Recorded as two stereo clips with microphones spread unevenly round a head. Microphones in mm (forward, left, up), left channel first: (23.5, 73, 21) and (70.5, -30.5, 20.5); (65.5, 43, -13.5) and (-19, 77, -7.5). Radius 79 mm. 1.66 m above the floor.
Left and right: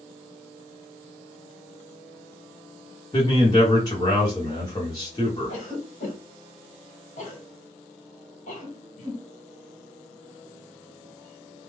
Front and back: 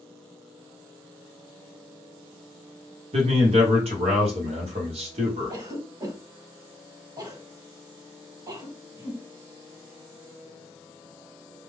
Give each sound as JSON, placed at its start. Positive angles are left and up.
{"t": 3.1, "sound": "a man speaking", "azimuth_deg": 180, "distance_m": 1.0}
{"t": 5.5, "sound": "a cough", "azimuth_deg": 120, "distance_m": 1.6}